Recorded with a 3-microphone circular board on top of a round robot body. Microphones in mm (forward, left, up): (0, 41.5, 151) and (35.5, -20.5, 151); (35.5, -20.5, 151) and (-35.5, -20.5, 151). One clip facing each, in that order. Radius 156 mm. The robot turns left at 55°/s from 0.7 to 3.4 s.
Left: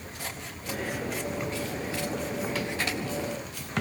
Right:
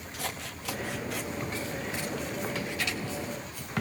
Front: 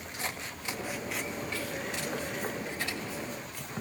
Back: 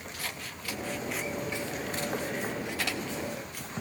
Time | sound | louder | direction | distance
0.1 | scissors | right 3 dB, front 4 dB | 65° right | 0.7 m